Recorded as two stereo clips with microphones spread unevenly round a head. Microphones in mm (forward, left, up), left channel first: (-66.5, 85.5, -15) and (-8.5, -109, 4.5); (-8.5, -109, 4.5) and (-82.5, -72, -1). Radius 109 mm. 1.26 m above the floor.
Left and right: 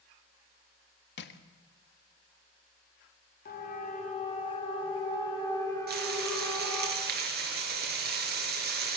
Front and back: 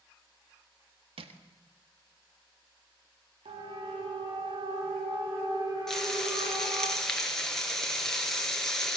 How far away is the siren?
About 4 m.